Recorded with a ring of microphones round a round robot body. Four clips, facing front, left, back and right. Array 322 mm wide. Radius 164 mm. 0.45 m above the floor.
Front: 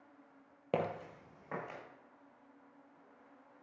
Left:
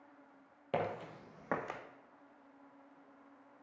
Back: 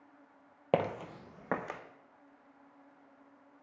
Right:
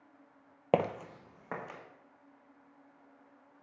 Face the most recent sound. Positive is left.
turn(degrees=155)